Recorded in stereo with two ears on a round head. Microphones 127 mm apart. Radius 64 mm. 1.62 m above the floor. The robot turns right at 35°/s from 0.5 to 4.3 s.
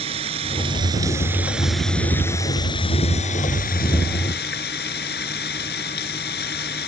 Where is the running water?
45° right; by 6.9 s 90° left.